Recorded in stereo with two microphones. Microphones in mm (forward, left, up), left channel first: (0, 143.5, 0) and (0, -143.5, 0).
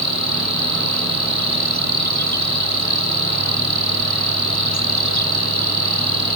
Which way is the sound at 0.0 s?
80° right.